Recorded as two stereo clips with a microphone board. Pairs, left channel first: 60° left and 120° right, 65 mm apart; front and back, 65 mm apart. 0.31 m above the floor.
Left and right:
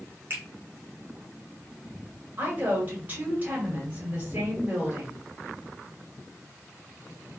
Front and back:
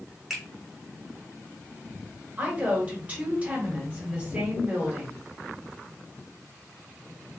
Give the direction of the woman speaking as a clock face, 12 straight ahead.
5 o'clock.